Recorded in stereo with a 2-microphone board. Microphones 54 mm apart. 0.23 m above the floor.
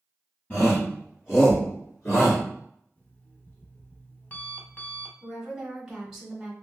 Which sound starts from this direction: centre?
A woman speaking, at 5.2 s.